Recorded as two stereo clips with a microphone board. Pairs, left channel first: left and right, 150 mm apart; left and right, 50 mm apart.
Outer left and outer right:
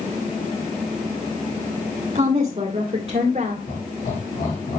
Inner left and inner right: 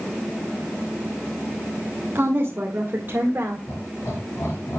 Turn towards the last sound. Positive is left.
turn(degrees=75)  # may be behind; listen again after turning